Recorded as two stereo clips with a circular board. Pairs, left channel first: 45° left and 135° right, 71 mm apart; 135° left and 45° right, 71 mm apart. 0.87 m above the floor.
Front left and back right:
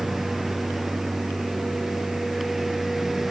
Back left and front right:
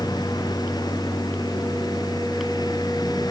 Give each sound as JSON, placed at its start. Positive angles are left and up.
{"t": 0.0, "sound": "a lawn mower", "azimuth_deg": 140}